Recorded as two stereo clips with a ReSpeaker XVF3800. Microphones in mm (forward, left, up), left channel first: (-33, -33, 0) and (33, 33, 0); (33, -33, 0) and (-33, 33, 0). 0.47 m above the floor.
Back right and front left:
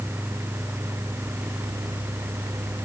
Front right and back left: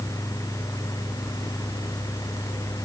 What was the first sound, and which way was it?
Only background noise.